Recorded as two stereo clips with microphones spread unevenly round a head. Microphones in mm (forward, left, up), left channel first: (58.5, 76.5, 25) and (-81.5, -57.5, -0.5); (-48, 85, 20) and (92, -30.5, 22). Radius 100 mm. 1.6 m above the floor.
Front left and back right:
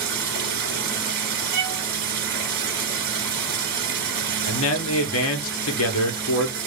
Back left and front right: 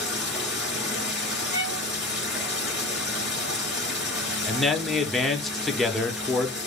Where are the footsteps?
I don't hear footsteps.